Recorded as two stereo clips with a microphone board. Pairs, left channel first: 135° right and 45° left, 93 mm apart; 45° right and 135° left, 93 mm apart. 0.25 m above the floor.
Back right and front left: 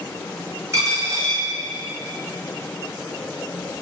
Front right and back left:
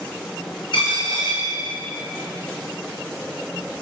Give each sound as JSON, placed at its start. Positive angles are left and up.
{"t": 0.7, "sound": "a dropped coin", "azimuth_deg": -10, "distance_m": 2.0}